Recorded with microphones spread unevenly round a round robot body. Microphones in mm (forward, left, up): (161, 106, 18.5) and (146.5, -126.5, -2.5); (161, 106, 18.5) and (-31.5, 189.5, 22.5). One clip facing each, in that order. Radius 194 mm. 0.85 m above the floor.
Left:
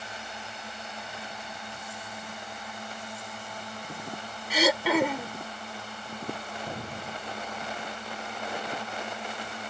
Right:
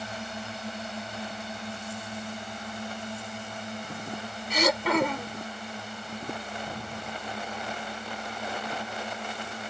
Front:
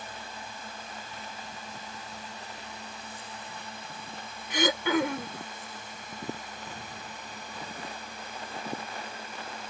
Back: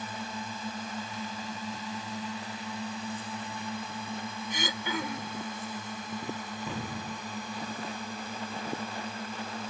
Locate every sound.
0.0 s a drone: 160° right; by 9.7 s straight behind
4.5 s throat clearing: straight ahead
6.7 s an explosion: 165° left